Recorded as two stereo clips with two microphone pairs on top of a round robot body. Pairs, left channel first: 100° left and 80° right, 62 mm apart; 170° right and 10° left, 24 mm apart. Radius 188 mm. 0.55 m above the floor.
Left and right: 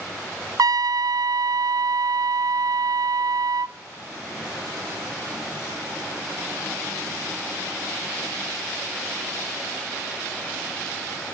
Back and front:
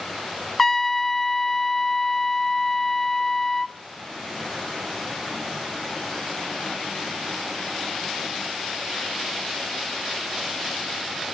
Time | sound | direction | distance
0.6 | a trumpet | 85° right | 0.5 m